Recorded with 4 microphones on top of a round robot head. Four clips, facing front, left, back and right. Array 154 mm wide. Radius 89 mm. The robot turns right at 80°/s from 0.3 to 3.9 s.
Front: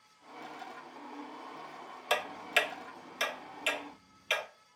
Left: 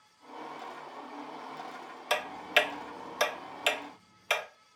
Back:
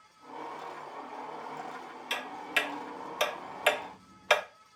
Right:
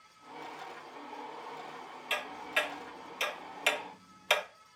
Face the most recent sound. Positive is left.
turn(degrees=-175)